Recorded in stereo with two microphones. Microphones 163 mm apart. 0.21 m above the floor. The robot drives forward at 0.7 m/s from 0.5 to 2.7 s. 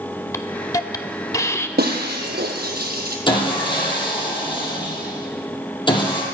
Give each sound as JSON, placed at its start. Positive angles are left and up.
{"t": 0.3, "sound": "a hiss", "side_deg": 20, "distance_m": 0.6}
{"t": 1.8, "sound": "breaking glass", "side_deg": -80, "distance_m": 1.4}
{"t": 3.3, "sound": "sawing", "side_deg": 30, "distance_m": 2.5}